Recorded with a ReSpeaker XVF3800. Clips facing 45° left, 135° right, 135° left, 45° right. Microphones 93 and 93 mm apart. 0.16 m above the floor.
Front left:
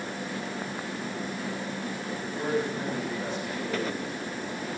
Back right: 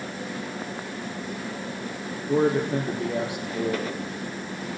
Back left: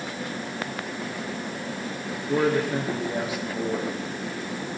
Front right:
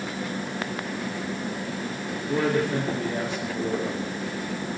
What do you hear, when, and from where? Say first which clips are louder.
2.3 s a man speaking: back right 8 dB, back left 1 dB; 145° right, 6 m